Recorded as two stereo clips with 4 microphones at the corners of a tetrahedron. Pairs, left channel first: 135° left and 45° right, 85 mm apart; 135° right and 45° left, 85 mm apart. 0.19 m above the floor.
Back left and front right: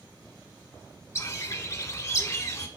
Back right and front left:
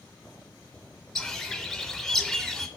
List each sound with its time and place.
1.1 s a bird: 140° left, 0.9 m